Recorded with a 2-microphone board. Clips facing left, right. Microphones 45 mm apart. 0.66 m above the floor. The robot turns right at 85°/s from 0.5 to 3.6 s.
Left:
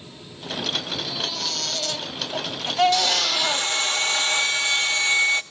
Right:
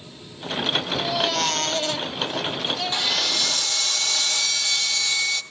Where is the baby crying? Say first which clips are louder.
Right 7 dB; 105° right, 2 m; by 3.7 s 125° left, 2 m.